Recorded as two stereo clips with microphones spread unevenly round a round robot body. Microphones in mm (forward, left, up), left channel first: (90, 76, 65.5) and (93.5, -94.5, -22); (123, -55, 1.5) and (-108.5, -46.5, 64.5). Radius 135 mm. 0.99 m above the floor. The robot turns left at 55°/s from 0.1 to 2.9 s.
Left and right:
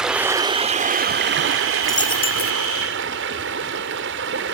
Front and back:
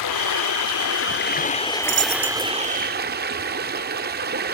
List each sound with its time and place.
0.0 s running water: 10° left, 1.1 m; by 4.5 s 145° right, 1.1 m
1.8 s a dropped coin: 145° left, 0.6 m; by 2.5 s 105° left, 0.6 m